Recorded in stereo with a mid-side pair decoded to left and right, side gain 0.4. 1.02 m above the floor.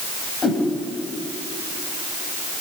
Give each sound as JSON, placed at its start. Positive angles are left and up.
{"t": 0.4, "sound": "a whoosh", "azimuth_deg": 35, "distance_m": 8.0}